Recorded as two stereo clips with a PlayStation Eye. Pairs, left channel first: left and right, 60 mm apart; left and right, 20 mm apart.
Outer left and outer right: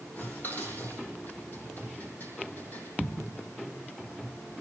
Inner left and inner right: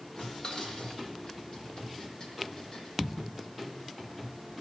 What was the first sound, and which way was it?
Dishes clattering, 30° left (ahead or behind).